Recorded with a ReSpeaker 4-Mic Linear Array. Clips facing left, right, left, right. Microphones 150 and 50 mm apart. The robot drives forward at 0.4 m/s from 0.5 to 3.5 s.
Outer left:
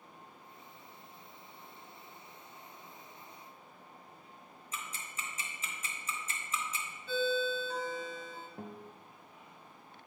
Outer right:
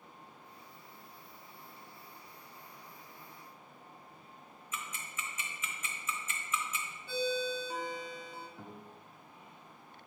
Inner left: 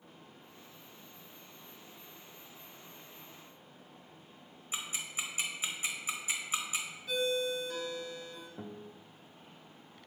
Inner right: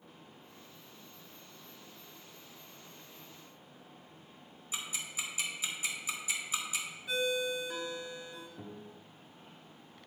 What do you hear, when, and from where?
4.7 s ticking: 35° left (ahead or behind), 1.1 m
7.1 s a ringtone: 15° right (ahead or behind), 1.2 m
8.6 s a guitar: 50° left (ahead or behind), 0.8 m